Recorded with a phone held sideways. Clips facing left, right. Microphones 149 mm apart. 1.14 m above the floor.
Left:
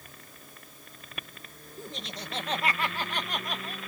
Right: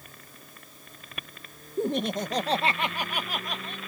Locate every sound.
1.8 s laughter: 65° right (ahead or behind); by 3.8 s 5° left (ahead or behind)